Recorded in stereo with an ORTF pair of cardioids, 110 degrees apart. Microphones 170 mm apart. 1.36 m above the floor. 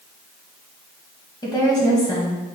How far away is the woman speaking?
About 1.4 m.